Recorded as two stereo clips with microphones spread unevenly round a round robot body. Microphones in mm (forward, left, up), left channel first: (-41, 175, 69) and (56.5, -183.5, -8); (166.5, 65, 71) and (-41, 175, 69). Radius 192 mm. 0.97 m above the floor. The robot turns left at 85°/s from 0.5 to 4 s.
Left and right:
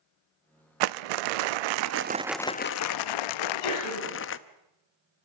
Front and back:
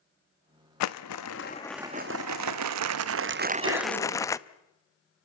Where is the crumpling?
35° right, 0.6 m; by 4.4 s 50° left, 0.6 m.